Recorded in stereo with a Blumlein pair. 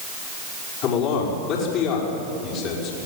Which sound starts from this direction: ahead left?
A man speaking, at 0.8 s.